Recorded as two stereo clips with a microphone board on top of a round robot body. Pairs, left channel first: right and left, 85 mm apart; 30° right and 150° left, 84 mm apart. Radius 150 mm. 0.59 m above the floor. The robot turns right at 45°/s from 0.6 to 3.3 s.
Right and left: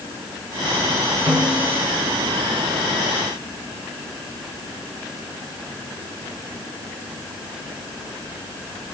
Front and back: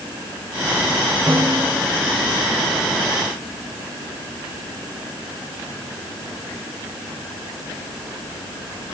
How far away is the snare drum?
About 7 m.